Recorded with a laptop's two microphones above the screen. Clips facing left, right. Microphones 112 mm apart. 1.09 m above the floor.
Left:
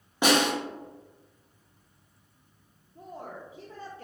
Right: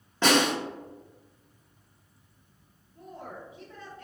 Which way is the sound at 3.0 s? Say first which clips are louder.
Left 1 dB; 40° left (ahead or behind).